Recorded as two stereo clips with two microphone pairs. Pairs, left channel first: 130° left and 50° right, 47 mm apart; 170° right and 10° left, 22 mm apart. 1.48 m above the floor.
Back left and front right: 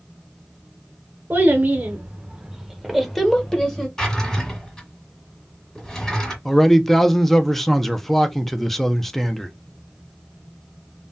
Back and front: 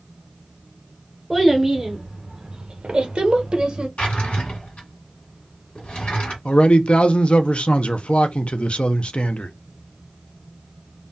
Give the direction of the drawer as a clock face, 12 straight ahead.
5 o'clock.